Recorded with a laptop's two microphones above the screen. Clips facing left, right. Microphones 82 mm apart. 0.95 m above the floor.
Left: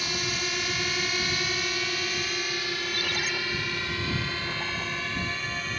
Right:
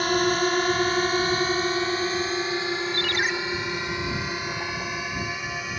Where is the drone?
50° right (ahead or behind); by 5.8 s 10° right (ahead or behind).